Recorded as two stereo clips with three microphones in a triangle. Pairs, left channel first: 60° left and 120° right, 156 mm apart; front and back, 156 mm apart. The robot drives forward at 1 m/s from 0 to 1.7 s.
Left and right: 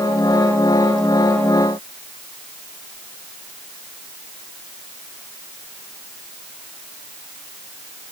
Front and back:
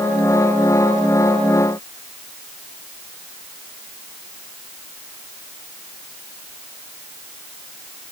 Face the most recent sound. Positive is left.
No sound to turn to.